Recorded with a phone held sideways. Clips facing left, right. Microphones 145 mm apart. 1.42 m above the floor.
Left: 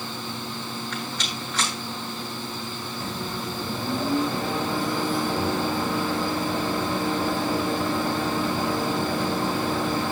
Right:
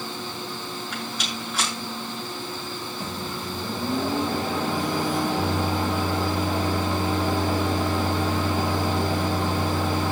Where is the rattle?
10° right (ahead or behind), 9 m.